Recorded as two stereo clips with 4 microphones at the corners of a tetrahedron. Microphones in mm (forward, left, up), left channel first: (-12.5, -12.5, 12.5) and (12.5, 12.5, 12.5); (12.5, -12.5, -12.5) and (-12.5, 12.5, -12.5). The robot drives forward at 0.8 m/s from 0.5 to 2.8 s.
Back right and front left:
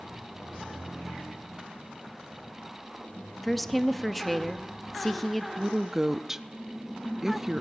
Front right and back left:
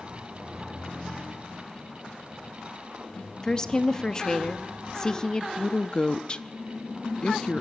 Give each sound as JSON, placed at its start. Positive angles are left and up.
{"t": 3.4, "sound": "a woman speaking", "azimuth_deg": -50, "distance_m": 0.8}
{"t": 5.6, "sound": "a woman speaking", "azimuth_deg": -20, "distance_m": 0.6}